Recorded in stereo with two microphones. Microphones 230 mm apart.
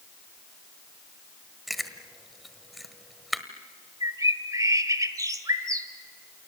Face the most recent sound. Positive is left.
turn(degrees=-15)  # may be behind; listen again after turning